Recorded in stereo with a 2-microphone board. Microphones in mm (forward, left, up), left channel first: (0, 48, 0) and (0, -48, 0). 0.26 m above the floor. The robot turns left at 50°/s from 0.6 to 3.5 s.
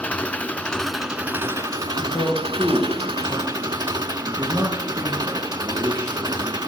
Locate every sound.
0.0 s an engine running: 15° left, 0.7 m; by 6.7 s 130° right, 0.7 m
2.0 s a man speaking: 45° left, 4.5 m; by 6.7 s 30° right, 4.5 m